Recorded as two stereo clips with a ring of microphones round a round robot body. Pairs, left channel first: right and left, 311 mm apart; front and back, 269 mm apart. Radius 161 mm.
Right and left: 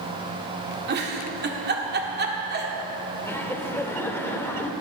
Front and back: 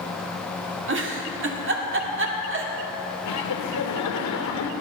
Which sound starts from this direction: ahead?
Laughter, at 3.2 s.